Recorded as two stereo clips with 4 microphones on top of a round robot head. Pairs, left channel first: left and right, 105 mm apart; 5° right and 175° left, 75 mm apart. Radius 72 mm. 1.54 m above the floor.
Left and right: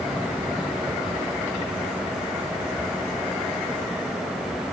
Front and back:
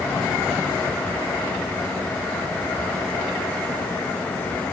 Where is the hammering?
No hammering in this recording.